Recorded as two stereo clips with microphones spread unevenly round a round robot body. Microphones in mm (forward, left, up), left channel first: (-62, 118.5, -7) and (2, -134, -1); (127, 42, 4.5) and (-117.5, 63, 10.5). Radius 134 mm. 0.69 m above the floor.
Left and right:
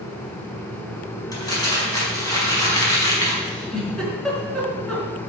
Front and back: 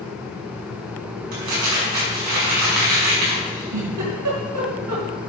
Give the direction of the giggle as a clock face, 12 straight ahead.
6 o'clock.